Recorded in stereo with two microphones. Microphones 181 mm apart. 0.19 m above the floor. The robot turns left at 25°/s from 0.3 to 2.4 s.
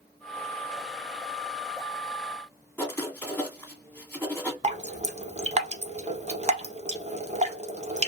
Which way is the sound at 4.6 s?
40° right (ahead or behind).